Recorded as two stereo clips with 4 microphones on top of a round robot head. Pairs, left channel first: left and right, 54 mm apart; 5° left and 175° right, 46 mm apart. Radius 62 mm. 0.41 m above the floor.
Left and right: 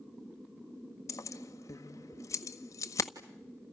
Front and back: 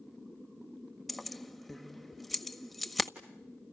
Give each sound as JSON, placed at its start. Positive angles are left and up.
{"t": 1.1, "sound": "keys jangling", "azimuth_deg": 95, "distance_m": 1.6}